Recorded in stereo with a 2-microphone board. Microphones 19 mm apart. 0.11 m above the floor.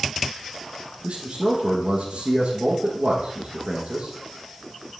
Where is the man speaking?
70° right (ahead or behind), 3.5 m.